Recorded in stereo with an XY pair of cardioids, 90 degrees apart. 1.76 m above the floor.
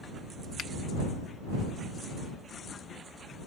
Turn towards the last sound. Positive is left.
turn(degrees=70)